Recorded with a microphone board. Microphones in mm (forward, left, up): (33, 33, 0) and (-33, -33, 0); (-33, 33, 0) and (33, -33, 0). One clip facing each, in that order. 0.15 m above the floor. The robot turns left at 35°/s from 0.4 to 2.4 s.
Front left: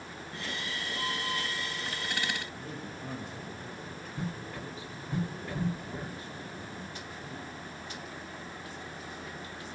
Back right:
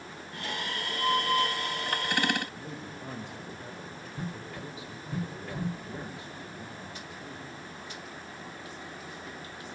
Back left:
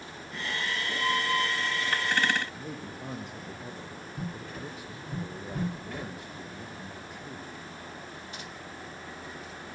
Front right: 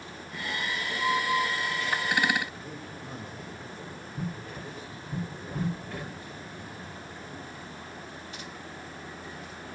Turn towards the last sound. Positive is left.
turn(degrees=155)